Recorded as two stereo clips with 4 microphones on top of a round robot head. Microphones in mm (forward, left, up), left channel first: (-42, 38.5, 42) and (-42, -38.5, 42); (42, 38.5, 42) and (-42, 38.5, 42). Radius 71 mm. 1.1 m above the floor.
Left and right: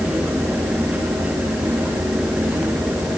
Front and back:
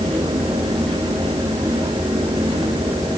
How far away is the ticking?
No ticking in this recording.